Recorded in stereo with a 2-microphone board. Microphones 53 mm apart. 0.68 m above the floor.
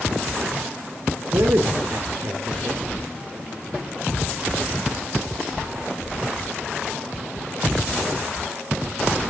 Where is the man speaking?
70° right (ahead or behind), 1.8 m.